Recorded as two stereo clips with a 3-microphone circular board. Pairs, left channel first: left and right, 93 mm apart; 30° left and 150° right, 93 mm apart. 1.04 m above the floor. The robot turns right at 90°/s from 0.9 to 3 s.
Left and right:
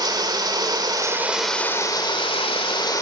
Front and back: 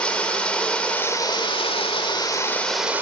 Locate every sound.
0.0 s running water: 50° right, 2 m; by 3.0 s 140° left, 2 m